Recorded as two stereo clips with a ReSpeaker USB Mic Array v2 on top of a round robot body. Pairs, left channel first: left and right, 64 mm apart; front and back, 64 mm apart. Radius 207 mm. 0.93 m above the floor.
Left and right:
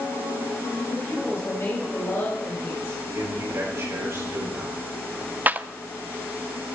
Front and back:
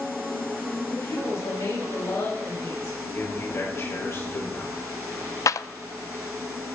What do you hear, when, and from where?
0.9 s a woman speaking: 40° left, 5.5 m
3.1 s a man speaking: 45° right, 6 m
5.5 s a clap: 30° right, 0.6 m